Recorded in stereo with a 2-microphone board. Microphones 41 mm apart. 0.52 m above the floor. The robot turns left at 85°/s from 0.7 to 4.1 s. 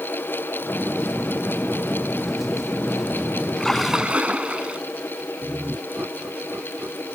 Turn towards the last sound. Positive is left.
turn(degrees=-75)  # may be behind; listen again after turning